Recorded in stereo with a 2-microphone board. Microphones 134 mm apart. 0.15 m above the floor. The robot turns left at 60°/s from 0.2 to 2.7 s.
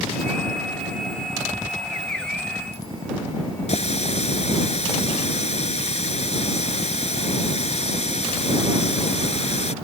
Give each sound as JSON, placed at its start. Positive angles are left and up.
{"t": 3.7, "sound": "a running tap", "side_deg": 55}